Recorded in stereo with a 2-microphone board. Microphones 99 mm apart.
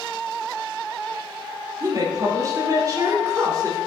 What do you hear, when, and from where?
1.8 s a woman speaking: 35° right (ahead or behind), 0.8 m